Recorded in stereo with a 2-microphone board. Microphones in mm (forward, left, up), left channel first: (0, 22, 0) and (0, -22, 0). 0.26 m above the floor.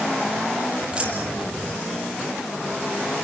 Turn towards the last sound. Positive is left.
turn(degrees=-25)  # may be behind; listen again after turning